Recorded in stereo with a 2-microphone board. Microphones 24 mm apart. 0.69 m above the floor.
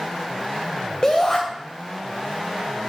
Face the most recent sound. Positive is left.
turn(degrees=30)  # may be behind; listen again after turning